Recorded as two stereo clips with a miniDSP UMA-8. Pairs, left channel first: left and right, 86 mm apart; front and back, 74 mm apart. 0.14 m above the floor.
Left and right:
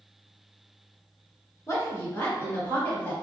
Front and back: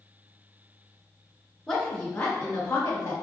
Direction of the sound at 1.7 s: 80° left.